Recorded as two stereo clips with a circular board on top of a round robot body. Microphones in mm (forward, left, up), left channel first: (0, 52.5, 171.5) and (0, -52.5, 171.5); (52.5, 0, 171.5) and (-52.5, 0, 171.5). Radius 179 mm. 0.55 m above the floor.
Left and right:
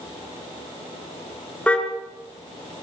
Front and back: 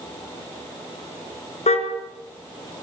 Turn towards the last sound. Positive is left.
turn(degrees=10)